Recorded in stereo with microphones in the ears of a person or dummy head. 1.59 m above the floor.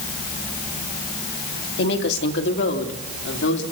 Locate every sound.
1.8 s a woman speaking: 70° left (ahead or behind), 2 m; by 3.6 s 75° left (ahead or behind), 3 m